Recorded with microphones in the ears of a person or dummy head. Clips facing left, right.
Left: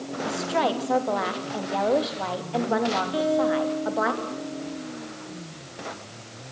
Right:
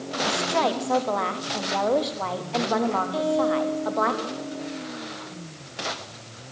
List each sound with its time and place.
0.2 s a woman speaking: 5° left (ahead or behind), 3 m
3.1 s a guitar: 15° left (ahead or behind), 4 m